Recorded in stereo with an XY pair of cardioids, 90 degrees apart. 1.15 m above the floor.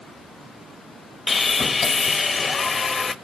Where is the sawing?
35° left, 1.3 m.